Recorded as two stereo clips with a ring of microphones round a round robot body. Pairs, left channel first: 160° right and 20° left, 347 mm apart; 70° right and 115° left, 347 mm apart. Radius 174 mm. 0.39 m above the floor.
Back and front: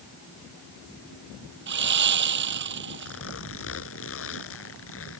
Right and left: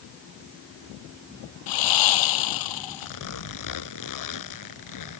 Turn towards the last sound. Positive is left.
turn(degrees=-105)